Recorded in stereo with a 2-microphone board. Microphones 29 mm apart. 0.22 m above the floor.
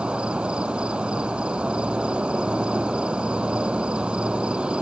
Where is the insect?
35° right (ahead or behind).